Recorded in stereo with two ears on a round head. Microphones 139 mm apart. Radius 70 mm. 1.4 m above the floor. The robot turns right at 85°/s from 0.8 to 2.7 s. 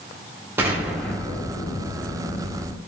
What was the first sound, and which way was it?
An explosion, 15° right.